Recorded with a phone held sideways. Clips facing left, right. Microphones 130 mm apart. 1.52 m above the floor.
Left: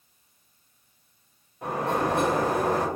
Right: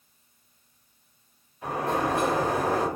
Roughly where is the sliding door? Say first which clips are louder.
Left 1 dB; left.